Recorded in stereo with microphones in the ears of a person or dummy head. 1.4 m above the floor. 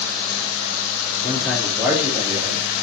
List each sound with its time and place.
1.2 s a man speaking: 15° left (ahead or behind), 0.8 m; by 2.7 s 30° right (ahead or behind), 1.4 m